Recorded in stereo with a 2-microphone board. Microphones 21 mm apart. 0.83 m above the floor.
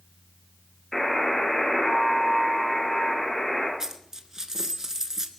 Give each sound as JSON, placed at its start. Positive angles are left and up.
{"t": 0.9, "sound": "a buzzer", "side_deg": 25, "distance_m": 6.5}
{"t": 3.8, "sound": "a dropped coin", "side_deg": -30, "distance_m": 1.1}